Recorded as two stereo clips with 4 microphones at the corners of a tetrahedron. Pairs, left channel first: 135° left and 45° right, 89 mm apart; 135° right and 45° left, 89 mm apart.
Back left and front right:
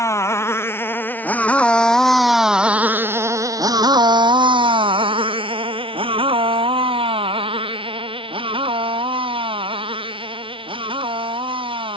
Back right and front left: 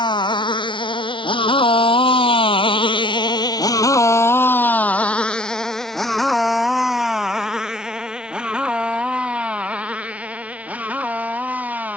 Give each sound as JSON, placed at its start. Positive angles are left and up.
{"t": 0.0, "sound": "a motorcycle", "azimuth_deg": -170}